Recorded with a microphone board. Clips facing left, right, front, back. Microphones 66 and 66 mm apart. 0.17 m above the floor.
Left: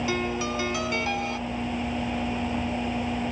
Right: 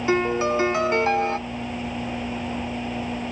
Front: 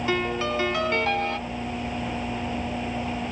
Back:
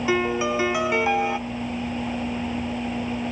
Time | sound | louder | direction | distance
0.1 | a piano | right 7 dB, back 4 dB | 110° right | 0.5 m